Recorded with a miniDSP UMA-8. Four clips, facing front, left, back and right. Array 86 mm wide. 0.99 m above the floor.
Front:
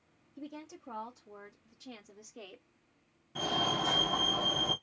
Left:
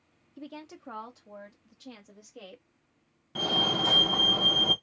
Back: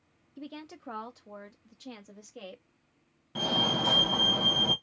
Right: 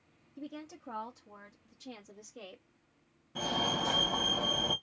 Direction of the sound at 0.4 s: 145° left.